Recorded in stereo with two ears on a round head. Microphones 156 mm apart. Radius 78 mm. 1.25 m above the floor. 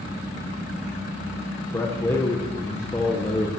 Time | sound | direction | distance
1.7 | a man speaking | 15° left (ahead or behind) | 1.0 m